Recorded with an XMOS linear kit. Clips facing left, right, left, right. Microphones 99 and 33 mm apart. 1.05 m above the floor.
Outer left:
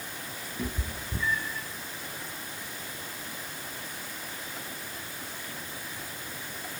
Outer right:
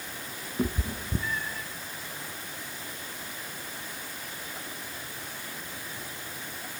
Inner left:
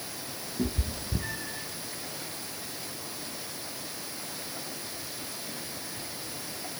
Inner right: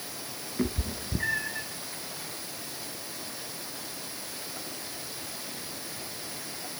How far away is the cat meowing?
About 2 m.